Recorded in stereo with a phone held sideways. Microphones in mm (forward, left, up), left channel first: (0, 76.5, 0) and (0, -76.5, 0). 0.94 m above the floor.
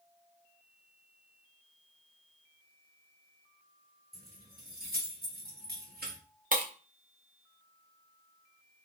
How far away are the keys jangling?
About 1.1 m.